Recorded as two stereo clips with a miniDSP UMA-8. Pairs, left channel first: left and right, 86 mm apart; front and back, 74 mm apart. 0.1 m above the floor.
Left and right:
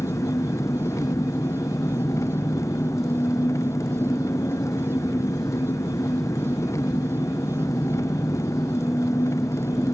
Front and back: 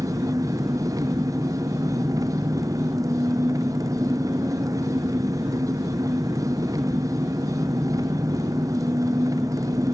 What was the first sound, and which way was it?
An engine running, 145° left.